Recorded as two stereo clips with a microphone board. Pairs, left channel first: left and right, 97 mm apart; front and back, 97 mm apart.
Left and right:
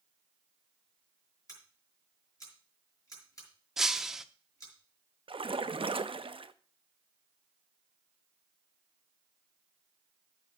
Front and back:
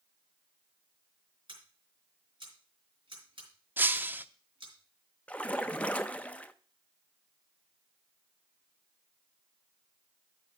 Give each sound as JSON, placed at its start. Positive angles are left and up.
{"t": 1.5, "sound": "scissors", "azimuth_deg": 145, "distance_m": 5.0}
{"t": 3.8, "sound": "breaking glass", "azimuth_deg": -165, "distance_m": 0.5}
{"t": 5.3, "sound": "a splash", "azimuth_deg": -75, "distance_m": 0.5}